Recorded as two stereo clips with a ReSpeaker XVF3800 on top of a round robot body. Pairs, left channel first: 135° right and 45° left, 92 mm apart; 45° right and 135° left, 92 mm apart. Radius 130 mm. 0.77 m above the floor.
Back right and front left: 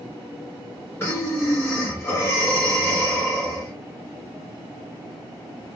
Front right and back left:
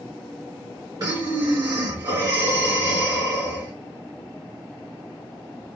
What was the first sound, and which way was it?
Breathing, 170° left.